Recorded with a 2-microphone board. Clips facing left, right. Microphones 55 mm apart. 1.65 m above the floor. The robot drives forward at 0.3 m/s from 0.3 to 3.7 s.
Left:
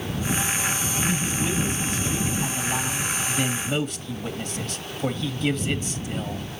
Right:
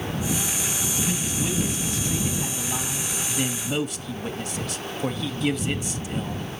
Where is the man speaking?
Centre (ahead or behind), 1.5 m; by 6.5 s 5° right (ahead or behind), 0.7 m.